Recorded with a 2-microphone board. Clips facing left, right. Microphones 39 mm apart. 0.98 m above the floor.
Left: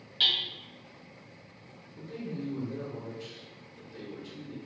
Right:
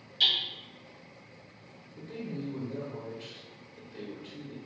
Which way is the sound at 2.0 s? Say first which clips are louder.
Even; 20° right (ahead or behind).